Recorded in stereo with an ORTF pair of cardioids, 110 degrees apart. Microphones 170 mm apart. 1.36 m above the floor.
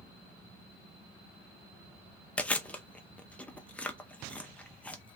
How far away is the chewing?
About 0.6 m.